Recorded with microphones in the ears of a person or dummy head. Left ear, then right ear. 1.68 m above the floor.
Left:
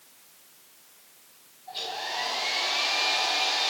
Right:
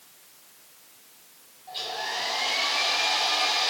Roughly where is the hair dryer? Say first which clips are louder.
Right 1 dB; centre.